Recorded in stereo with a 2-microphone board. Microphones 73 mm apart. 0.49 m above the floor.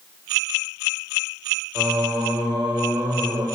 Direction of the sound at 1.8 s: 65° right (ahead or behind).